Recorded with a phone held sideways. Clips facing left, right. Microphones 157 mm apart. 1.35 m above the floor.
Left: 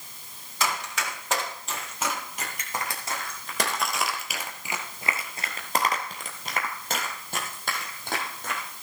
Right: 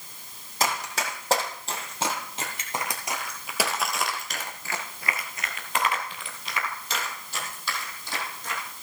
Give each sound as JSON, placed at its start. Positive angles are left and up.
{"t": 0.6, "sound": "running footsteps", "side_deg": -40, "distance_m": 3.0}